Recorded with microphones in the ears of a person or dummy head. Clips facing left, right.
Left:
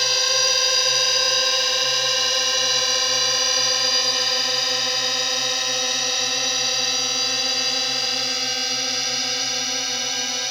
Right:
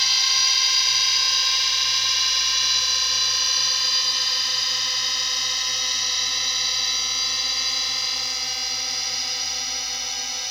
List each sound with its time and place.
0.0 s a drone: 45° left (ahead or behind); by 10.5 s 55° left (ahead or behind)